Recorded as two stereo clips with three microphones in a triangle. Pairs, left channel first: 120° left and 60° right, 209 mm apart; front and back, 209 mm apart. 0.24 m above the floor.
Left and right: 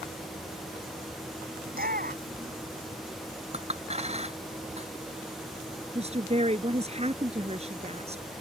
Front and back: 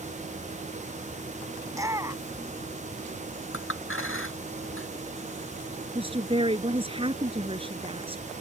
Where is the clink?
Straight ahead.